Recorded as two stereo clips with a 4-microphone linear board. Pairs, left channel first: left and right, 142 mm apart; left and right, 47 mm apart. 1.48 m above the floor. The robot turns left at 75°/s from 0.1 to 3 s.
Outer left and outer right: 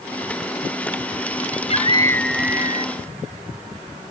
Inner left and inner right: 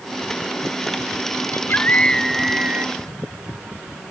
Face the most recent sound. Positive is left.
turn(degrees=-50)